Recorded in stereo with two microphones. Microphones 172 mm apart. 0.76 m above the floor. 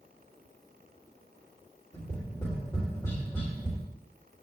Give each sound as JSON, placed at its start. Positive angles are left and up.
{"t": 1.9, "sound": "tapping", "side_deg": 15, "distance_m": 3.5}